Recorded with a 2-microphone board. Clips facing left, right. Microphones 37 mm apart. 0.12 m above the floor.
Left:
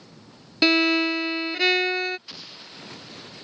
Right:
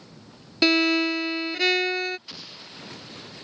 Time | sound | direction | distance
0.6 | a violin | 10° left (ahead or behind) | ?
2.3 | an explosion | centre (ahead or behind) | ?